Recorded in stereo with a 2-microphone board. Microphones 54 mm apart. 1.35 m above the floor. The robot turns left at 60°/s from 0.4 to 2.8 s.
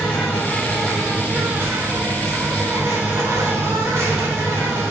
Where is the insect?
30° left, 1.4 m; by 4.9 s 115° right, 1.4 m.